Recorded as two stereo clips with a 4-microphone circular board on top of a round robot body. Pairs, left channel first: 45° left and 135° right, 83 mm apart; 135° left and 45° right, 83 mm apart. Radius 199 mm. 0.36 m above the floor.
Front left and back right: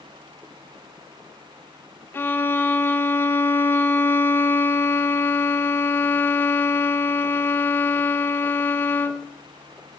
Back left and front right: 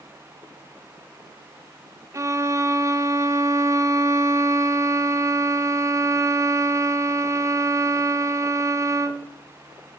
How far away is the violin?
About 0.8 m.